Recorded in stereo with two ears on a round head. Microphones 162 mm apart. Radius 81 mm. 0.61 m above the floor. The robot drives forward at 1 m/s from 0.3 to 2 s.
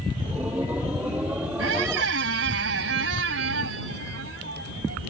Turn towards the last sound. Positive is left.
turn(degrees=-75)  # may be behind; listen again after turning